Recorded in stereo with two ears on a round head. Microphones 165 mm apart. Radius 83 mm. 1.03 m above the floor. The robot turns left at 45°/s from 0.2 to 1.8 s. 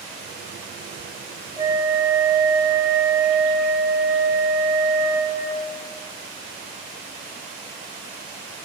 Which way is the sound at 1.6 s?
20° right (ahead or behind).